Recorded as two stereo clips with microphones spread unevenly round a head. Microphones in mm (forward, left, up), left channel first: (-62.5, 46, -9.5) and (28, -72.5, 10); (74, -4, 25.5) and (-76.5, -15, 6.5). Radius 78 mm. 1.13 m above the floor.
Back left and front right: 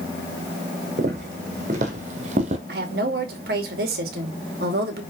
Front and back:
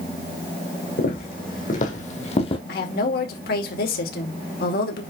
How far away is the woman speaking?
About 2 m.